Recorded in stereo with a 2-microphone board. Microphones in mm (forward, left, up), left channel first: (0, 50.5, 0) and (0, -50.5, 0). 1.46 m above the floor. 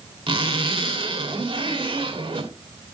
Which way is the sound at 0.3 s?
60° right (ahead or behind).